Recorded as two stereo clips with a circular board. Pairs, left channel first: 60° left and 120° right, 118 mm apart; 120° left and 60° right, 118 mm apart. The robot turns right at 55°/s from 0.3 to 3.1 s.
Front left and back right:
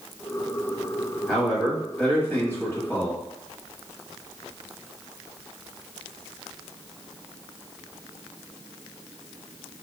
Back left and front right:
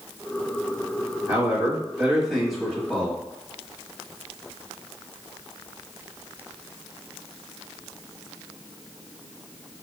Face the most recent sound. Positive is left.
turn(degrees=65)